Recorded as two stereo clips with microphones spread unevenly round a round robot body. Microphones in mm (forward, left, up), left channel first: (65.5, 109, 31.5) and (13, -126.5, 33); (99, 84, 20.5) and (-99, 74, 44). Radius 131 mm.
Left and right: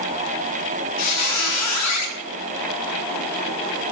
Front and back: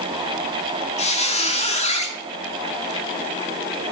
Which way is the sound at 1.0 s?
60° left.